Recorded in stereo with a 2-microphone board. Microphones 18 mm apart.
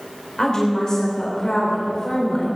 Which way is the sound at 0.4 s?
15° left (ahead or behind).